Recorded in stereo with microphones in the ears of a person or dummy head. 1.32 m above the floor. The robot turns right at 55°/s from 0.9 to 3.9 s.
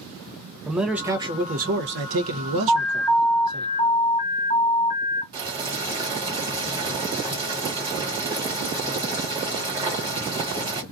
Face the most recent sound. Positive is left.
turn(degrees=-20)  # may be behind; listen again after turning